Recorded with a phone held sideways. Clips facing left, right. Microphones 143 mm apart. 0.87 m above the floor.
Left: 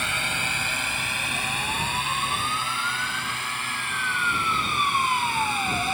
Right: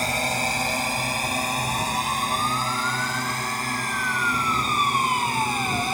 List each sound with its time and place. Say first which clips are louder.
0.0 s a drone: right 6 dB; 35° right (ahead or behind); by 5.9 s 40° right (ahead or behind)